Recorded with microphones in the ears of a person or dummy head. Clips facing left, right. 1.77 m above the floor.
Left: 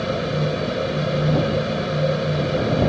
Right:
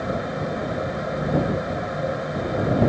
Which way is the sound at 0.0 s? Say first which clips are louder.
Left 3 dB; 45° left (ahead or behind).